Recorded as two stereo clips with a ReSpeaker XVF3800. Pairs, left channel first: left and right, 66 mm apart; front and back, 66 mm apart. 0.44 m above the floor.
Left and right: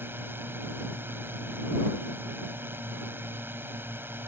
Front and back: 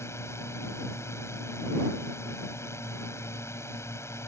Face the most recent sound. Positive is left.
turn(degrees=-40)